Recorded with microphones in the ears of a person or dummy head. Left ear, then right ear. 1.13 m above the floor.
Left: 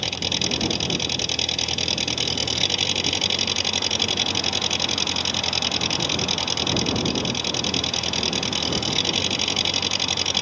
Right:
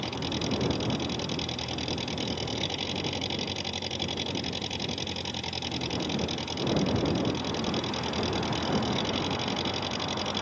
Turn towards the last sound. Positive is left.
turn(degrees=35)  # may be behind; listen again after turning